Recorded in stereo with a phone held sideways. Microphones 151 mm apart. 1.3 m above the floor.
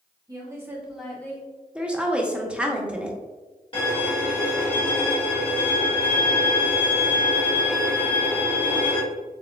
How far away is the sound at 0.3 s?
About 1.6 m.